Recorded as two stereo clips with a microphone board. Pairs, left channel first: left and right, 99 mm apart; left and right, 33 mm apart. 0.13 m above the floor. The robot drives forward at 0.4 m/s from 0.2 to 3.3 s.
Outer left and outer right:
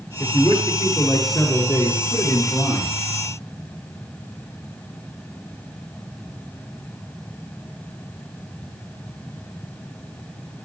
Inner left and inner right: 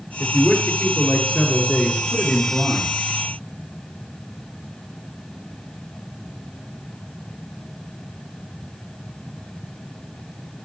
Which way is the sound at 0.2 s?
45° left (ahead or behind).